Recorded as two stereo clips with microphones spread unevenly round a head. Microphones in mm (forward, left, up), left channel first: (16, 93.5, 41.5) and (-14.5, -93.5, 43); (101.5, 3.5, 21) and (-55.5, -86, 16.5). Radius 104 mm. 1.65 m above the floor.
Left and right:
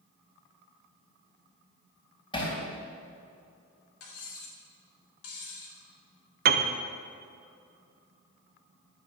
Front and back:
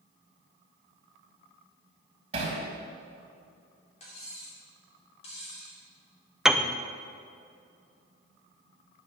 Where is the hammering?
145° left, 3.5 m.